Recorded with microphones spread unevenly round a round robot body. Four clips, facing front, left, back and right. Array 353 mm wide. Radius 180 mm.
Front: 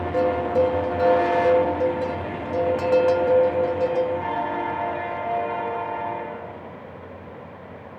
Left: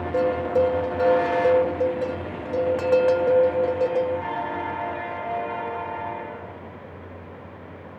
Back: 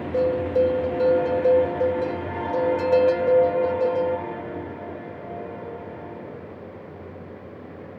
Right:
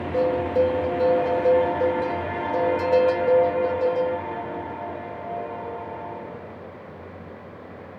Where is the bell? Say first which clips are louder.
Even, even; 75° left, 0.9 m.